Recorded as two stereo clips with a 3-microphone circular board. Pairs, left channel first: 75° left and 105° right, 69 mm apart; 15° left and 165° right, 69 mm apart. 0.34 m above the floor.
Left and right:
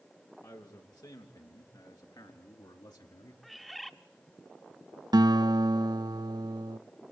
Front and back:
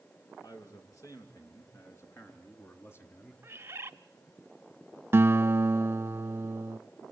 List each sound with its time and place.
0.4 s a man speaking: 50° left, 4.5 m; by 3.3 s 75° left, 4.5 m
3.4 s a bird: 160° left, 0.9 m
5.1 s a guitar: 110° right, 0.5 m